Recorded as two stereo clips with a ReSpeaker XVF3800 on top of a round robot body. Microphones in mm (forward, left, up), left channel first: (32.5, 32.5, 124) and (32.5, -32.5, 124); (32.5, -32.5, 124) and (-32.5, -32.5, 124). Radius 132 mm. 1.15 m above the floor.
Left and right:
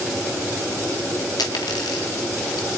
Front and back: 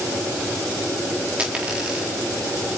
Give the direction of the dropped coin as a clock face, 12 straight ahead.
9 o'clock.